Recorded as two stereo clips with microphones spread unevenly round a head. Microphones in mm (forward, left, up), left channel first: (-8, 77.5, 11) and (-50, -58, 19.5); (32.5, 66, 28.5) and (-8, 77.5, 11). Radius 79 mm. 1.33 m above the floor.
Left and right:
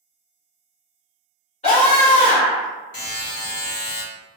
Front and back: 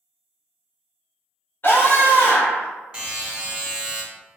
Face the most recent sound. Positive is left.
turn(degrees=85)